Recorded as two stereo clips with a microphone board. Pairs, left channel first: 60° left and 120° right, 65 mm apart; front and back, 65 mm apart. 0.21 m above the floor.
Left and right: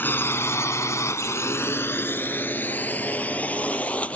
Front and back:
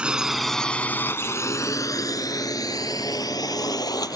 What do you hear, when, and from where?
0.0 s a drone: 110° left; by 4.2 s 10° right